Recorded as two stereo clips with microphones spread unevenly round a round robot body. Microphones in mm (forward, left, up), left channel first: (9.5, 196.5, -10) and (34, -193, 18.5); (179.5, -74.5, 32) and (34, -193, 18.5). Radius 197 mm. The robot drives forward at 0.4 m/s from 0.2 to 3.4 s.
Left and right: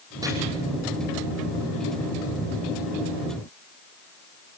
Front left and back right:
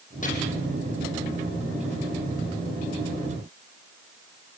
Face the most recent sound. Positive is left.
turn(degrees=-5)